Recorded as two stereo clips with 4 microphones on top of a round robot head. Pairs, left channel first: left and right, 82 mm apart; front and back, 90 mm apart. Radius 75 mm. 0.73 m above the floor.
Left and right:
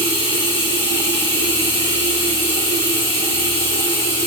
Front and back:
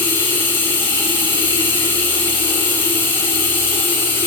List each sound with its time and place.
0.0 s running water: 65° left, 2.5 m